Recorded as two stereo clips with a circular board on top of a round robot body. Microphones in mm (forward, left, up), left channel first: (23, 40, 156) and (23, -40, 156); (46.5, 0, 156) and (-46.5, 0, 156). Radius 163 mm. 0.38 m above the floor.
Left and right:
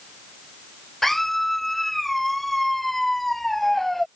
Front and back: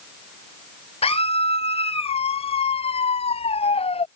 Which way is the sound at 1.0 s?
Straight ahead.